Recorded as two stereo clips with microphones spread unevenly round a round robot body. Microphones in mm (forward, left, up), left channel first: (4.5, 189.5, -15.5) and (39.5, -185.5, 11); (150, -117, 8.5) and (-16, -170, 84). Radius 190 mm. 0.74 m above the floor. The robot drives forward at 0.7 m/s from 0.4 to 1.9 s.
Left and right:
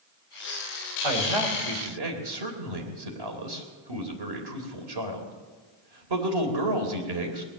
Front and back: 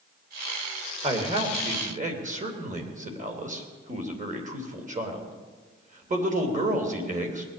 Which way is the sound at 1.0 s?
100° right.